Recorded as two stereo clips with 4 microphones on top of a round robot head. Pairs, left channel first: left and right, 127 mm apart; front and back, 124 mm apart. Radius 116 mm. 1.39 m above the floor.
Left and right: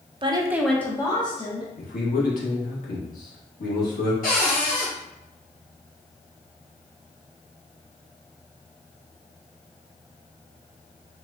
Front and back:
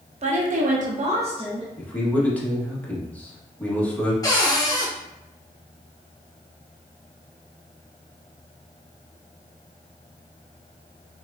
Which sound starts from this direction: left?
A man speaking, at 1.8 s.